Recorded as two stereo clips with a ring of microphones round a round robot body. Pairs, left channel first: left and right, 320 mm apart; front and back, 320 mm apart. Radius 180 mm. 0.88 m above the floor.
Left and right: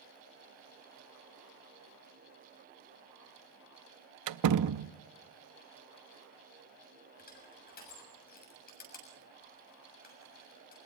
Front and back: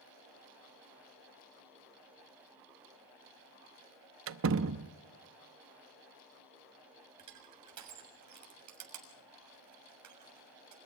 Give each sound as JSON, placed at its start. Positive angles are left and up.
{"t": 4.3, "sound": "a door slam", "azimuth_deg": -125, "distance_m": 0.7}
{"t": 7.2, "sound": "crushing", "azimuth_deg": 155, "distance_m": 7.0}